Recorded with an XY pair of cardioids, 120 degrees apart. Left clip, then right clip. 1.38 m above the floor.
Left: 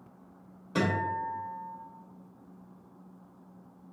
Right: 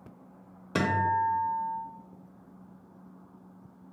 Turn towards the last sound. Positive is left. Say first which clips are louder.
# right 4 dB
turn(degrees=-45)